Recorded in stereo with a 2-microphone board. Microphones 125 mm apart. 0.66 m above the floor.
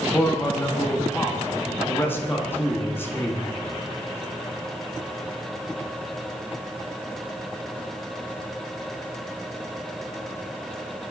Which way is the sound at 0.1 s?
15° left (ahead or behind).